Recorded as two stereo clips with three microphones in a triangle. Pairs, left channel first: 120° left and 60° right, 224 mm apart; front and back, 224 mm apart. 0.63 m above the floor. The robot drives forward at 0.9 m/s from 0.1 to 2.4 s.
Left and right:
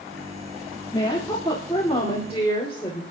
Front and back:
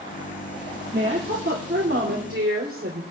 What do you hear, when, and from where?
0.9 s a woman speaking: 175° right, 1.7 m